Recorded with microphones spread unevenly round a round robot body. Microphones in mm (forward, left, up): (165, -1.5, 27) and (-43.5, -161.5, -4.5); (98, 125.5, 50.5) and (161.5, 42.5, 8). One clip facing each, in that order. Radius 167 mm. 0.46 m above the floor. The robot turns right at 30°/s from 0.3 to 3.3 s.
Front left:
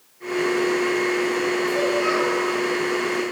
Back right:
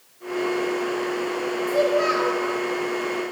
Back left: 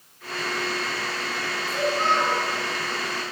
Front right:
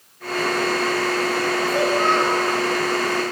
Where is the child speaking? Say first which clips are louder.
Even, front right 2 dB; 125° right, 5.5 m; by 2.4 s 105° right, 5.5 m.